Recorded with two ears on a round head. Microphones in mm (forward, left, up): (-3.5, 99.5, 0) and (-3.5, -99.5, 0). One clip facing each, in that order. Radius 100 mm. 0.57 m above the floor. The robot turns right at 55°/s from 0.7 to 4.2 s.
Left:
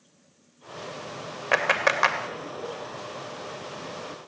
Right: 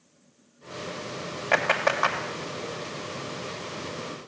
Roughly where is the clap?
Centre.